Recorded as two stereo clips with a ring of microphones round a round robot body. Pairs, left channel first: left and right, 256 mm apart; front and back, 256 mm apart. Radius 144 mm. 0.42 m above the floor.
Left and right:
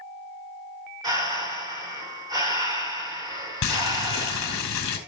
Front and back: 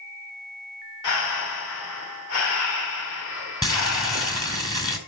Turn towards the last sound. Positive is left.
turn(degrees=75)